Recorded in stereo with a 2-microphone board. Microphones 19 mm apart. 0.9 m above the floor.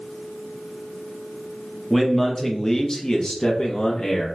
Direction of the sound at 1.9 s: Centre (ahead or behind).